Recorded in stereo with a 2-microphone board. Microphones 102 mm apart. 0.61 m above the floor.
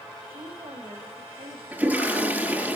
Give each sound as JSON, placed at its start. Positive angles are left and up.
{"t": 0.3, "sound": "a woman speaking", "side_deg": -75, "distance_m": 4.0}
{"t": 1.7, "sound": "a toilet flushing", "side_deg": -20, "distance_m": 5.5}